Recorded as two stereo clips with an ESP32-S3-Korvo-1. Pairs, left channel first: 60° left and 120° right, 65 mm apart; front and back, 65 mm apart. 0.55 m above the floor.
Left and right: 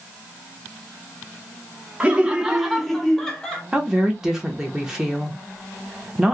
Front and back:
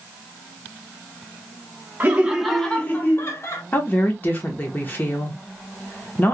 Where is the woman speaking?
45° right, 1.1 m.